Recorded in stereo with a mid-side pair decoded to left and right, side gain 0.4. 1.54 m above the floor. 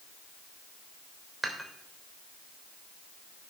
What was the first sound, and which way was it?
Dishes clattering, 15° right.